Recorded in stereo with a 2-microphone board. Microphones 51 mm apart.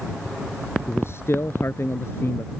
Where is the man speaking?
50° left (ahead or behind).